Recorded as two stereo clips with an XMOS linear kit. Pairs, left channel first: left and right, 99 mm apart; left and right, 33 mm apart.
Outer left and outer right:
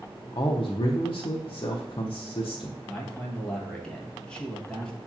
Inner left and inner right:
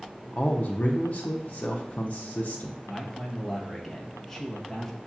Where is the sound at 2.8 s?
10° left (ahead or behind), 1.1 m.